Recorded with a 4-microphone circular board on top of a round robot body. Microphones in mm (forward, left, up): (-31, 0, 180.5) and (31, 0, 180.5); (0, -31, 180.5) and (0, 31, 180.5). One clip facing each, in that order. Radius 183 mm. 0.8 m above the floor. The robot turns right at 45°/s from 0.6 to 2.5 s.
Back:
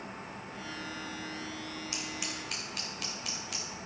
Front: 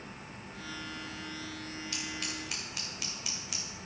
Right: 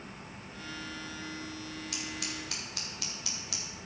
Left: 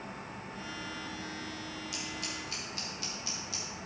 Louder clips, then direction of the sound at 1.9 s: Even, right 1 dB; 115° right.